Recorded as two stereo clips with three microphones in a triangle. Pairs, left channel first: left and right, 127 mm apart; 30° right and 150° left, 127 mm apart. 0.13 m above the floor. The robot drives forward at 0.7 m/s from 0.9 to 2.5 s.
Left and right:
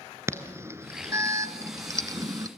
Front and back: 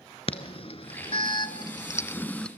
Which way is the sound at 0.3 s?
30° right.